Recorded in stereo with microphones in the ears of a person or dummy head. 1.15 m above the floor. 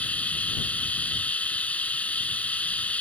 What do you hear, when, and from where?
0.0 s running water: 10° left (ahead or behind)